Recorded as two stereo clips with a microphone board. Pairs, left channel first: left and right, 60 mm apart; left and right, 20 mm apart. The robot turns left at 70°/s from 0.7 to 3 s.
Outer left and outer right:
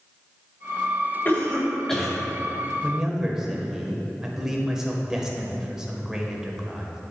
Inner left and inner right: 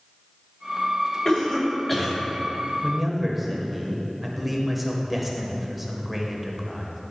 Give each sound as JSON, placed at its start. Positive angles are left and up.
{"t": 1.2, "sound": "a cough", "side_deg": 35, "distance_m": 1.7}
{"t": 2.8, "sound": "a man speaking", "side_deg": -15, "distance_m": 0.9}